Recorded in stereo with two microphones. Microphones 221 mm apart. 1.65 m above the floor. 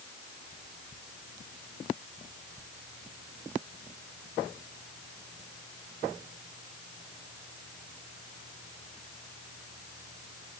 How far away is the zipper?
I don't hear a zipper.